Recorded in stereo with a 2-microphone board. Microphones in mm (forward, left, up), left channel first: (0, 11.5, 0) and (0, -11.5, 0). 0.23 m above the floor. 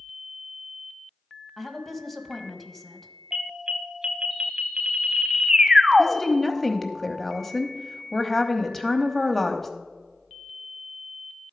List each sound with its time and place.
1.6 s a woman speaking: 10° left (ahead or behind), 1.1 m
3.3 s an alarm: 35° right (ahead or behind), 0.7 m
6.0 s a woman speaking: 10° left (ahead or behind), 0.9 m